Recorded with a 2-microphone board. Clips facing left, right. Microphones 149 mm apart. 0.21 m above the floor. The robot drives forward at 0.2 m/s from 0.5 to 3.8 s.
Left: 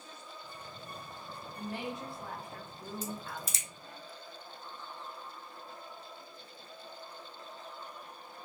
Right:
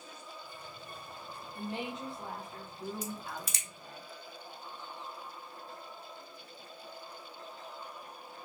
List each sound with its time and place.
1.6 s a woman speaking: 25° right (ahead or behind), 1.1 m; by 4.0 s 20° right (ahead or behind), 1.3 m
3.0 s a crack: 70° right (ahead or behind), 0.8 m; by 3.7 s 65° right (ahead or behind), 0.8 m